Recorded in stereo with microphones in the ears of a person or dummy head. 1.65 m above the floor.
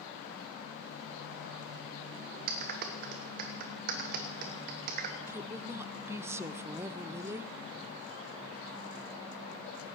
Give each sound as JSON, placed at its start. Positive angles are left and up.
{"t": 2.5, "sound": "a clap", "side_deg": -50, "distance_m": 1.2}
{"t": 5.3, "sound": "a woman speaking", "side_deg": -15, "distance_m": 0.5}